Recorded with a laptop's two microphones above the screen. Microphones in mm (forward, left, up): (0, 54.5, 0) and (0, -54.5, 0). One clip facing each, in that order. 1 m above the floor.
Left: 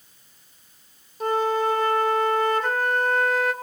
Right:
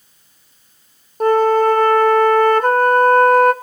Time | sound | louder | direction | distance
1.2 | a flute | right 10 dB | 55° right (ahead or behind) | 1.2 m